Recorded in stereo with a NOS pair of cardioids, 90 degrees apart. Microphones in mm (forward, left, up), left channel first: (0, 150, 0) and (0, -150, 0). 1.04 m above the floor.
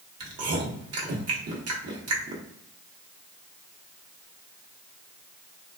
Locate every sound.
0.2 s chewing: 50° right, 1.0 m